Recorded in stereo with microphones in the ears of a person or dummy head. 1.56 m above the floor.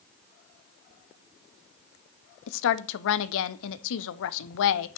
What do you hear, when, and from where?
2.5 s a woman speaking: 70° left (ahead or behind), 0.6 m